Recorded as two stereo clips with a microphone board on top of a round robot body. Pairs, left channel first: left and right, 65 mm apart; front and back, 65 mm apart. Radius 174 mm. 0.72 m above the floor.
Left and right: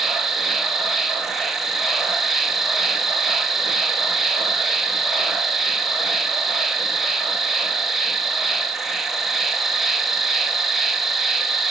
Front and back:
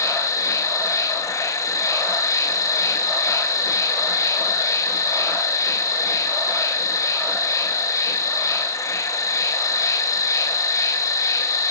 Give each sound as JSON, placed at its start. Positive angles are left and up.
{"t": 0.0, "sound": "an insect", "azimuth_deg": -5, "distance_m": 2.5}